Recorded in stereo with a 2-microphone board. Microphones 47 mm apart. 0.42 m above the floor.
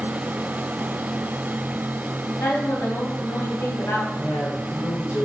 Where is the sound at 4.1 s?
45° left (ahead or behind), 4.5 m.